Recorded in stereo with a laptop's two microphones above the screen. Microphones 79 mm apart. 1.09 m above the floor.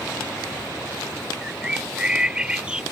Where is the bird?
10° right (ahead or behind).